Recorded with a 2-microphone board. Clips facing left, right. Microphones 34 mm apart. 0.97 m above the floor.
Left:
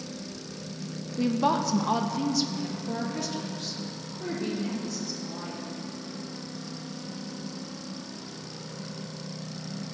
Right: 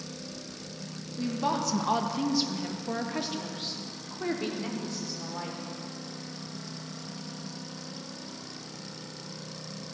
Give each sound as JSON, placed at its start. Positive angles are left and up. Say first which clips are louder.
{"t": 1.2, "sound": "a woman speaking", "louder": "left 4 dB", "side_deg": 35, "distance_m": 0.8}